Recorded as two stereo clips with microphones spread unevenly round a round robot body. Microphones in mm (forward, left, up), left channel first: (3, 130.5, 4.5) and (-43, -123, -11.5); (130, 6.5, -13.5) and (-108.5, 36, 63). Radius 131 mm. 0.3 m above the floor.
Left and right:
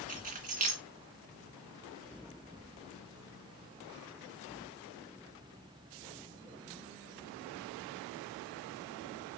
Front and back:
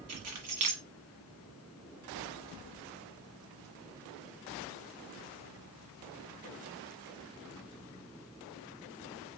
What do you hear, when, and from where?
0.1 s keys jangling: 155° right, 1.9 m